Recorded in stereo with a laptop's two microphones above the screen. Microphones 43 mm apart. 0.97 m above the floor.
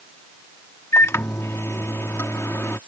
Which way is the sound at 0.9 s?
80° left.